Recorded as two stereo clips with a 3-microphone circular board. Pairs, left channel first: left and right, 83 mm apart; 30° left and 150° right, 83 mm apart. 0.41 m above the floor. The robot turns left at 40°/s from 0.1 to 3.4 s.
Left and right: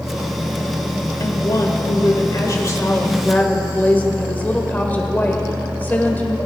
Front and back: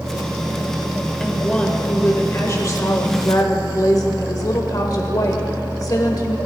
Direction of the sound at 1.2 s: 115° left.